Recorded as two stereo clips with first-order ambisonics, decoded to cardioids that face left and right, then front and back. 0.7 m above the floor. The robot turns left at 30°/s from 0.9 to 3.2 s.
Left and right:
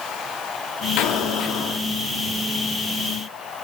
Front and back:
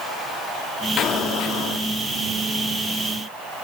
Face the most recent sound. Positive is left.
turn(degrees=-15)